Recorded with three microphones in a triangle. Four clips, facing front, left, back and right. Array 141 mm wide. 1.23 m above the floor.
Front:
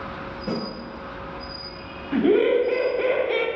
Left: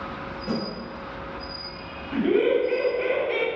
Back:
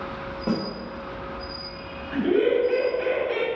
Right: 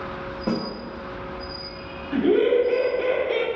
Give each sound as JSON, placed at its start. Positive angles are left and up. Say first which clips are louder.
{"t": 0.5, "sound": "a snare drum", "louder": "right 3 dB, back 2 dB", "azimuth_deg": -120, "distance_m": 1.7}
{"t": 2.1, "sound": "laughter", "louder": "right 2 dB, front 3 dB", "azimuth_deg": -10, "distance_m": 1.5}